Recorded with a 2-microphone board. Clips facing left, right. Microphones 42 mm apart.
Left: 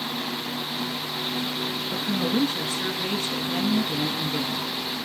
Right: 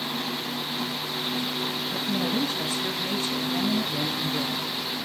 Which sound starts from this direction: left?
A woman speaking, at 1.9 s.